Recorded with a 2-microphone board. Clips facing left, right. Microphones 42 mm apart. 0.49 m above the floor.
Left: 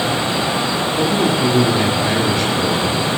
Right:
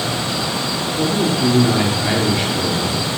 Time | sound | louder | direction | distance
1.0 | a man speaking | left 1 dB | 10° left (ahead or behind) | 1.3 m